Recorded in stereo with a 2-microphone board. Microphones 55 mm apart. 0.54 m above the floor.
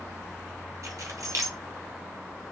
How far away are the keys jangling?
About 1.3 m.